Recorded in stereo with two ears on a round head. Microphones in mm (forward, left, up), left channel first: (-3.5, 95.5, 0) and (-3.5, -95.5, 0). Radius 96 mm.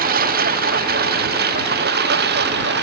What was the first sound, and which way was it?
A lawn mower, 45° right (ahead or behind).